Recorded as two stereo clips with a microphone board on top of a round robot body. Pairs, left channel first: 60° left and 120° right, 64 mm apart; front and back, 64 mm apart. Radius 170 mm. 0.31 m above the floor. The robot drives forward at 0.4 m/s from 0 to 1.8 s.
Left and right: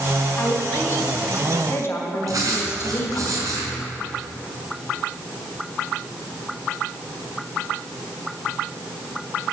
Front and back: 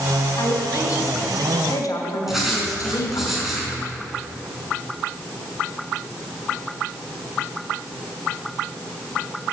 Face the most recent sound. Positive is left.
turn(degrees=-95)